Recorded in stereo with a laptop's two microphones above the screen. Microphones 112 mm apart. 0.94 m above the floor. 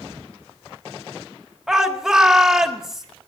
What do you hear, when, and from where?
1.7 s a shout: 5° right (ahead or behind), 1.7 m